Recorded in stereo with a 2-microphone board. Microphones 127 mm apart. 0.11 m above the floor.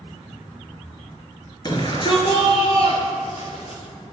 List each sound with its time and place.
1.6 s a shout: 35° left (ahead or behind), 1.5 m; by 3.8 s 60° left (ahead or behind), 2.5 m